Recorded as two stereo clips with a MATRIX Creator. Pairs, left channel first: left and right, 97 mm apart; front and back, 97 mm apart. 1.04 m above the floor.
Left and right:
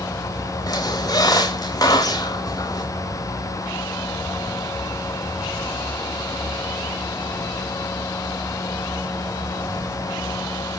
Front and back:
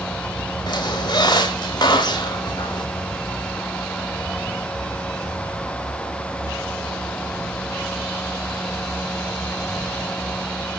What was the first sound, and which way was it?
A squeak, 45° left.